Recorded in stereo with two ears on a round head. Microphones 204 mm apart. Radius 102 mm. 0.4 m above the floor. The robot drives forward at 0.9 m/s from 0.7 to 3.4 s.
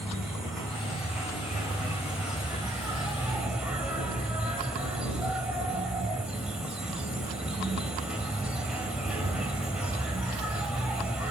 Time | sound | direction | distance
0.0 | an insect | centre (ahead or behind) | 4.5 m